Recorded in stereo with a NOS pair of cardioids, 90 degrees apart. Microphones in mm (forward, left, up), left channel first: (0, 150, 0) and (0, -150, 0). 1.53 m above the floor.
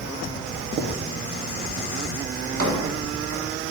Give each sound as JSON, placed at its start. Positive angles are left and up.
{"t": 0.8, "sound": "writing", "azimuth_deg": -60, "distance_m": 0.9}
{"t": 2.4, "sound": "a drawer", "azimuth_deg": -55, "distance_m": 1.9}